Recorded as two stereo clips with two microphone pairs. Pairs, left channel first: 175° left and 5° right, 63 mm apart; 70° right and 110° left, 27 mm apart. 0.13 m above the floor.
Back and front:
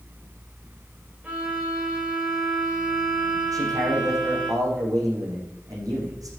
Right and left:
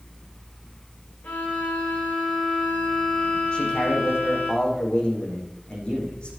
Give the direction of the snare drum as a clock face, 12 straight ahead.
No snare drum in this recording.